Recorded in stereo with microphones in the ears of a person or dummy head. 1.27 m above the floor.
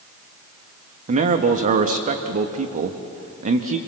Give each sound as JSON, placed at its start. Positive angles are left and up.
{"t": 1.1, "sound": "a man speaking", "side_deg": -45, "distance_m": 1.2}